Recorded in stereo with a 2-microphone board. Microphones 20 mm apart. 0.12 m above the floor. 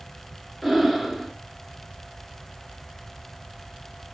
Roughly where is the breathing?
Centre.